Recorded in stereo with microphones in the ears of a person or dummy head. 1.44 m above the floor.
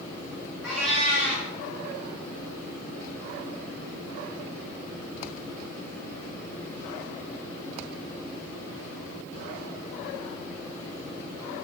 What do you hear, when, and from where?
0.6 s a cat meowing: centre (ahead or behind), 1.7 m